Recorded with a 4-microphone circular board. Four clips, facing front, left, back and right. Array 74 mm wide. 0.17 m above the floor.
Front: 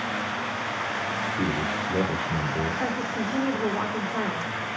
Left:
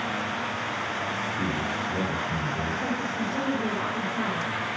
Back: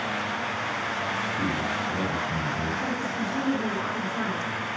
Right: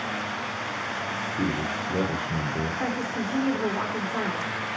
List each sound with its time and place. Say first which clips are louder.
1.4 s a man speaking: right 3 dB, front 1 dB; 55° right, 2.5 m
2.8 s a woman speaking: even, front 1 dB; 65° right, 5.5 m